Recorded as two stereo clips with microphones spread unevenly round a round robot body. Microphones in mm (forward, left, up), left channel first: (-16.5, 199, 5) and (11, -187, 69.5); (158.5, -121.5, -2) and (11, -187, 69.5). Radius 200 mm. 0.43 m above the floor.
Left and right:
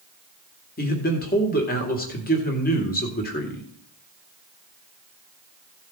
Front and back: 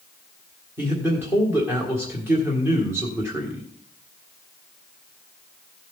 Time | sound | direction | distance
0.8 | a man speaking | 100° left | 1.6 m